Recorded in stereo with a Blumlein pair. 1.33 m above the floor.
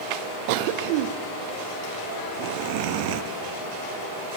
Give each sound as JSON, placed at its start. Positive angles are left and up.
{"t": 0.5, "sound": "a cough", "azimuth_deg": -45, "distance_m": 0.7}